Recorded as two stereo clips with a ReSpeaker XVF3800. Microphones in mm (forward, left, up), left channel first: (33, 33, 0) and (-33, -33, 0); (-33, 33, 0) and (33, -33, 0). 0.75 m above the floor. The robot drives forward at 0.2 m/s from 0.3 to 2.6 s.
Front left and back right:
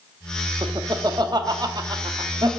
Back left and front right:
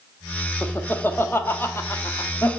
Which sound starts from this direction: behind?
Laughter, at 0.6 s.